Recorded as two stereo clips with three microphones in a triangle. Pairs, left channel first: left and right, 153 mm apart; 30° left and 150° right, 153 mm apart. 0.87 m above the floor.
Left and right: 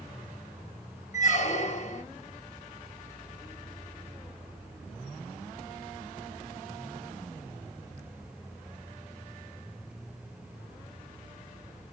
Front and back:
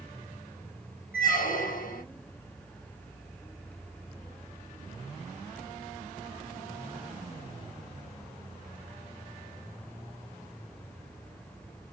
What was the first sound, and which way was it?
A squeak, 55° left.